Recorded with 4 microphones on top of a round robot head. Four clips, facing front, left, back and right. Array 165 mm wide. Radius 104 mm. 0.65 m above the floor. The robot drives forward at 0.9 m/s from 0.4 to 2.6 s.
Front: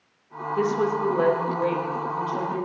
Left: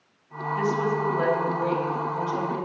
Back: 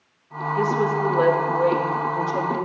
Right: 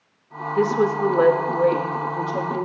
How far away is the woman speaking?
About 1.7 m.